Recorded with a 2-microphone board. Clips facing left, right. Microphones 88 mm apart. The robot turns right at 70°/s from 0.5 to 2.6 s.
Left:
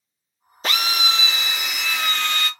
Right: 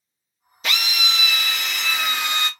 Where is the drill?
85° left, 0.6 m; by 2.5 s 145° right, 0.6 m.